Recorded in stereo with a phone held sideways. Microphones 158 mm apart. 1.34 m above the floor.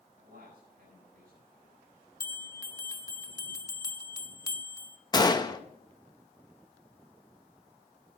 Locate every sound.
0.2 s a man speaking: 80° right, 7 m
2.2 s a bell: 20° left (ahead or behind), 0.8 m
5.1 s a gunshot: 25° left (ahead or behind), 0.8 m